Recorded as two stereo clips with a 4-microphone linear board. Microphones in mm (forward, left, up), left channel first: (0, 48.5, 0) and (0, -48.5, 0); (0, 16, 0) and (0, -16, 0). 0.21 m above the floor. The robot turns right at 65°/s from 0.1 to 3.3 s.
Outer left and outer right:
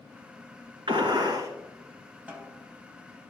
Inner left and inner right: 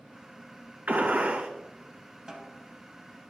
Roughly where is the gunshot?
Right.